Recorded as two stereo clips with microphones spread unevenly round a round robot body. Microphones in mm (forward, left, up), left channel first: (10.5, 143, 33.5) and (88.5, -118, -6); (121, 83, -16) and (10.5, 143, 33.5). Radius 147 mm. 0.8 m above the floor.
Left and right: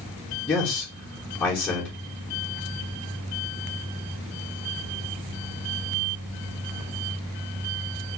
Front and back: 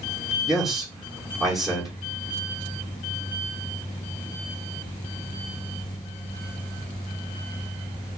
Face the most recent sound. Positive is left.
turn(degrees=15)